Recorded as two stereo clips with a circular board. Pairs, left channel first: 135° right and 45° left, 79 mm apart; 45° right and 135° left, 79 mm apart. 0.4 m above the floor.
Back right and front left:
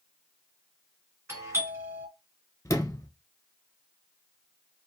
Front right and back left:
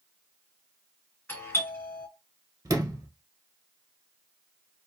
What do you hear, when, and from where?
1.3 s a doorbell: straight ahead, 2.5 m
2.6 s a sliding door: 175° left, 1.0 m